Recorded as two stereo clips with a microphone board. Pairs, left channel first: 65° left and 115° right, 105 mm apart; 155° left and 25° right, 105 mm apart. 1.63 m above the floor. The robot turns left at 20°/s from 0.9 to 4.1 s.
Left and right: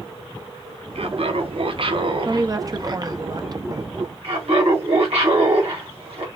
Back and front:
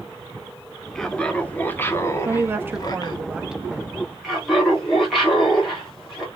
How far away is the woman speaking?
About 0.6 m.